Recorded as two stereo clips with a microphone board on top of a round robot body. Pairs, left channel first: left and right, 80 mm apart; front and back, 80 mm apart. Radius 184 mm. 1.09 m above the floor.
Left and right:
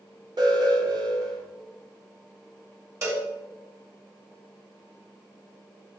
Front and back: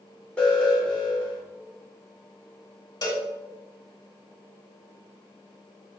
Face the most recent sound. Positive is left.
turn(degrees=-40)